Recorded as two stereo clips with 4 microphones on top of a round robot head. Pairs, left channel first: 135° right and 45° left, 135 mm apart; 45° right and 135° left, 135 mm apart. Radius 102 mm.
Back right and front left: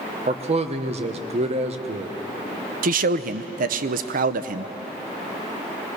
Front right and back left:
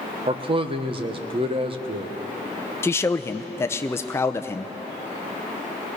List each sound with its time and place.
0.3 s a man speaking: 85° left, 1.2 m
2.8 s a man speaking: 25° left, 0.7 m